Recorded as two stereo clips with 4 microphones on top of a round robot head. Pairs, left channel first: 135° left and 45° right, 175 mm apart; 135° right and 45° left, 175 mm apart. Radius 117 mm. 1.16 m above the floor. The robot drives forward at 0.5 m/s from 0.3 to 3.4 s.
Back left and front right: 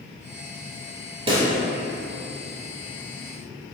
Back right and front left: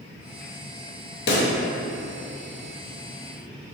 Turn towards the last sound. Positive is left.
turn(degrees=-160)